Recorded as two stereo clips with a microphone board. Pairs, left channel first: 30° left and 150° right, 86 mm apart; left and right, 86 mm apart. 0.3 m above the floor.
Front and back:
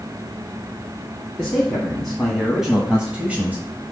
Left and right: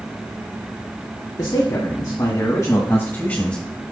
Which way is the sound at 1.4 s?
120° left.